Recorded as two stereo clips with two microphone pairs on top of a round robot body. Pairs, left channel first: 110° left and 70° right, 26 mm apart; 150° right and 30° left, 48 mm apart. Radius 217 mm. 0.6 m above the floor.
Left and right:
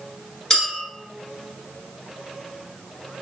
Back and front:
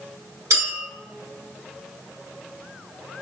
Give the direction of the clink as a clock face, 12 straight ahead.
11 o'clock.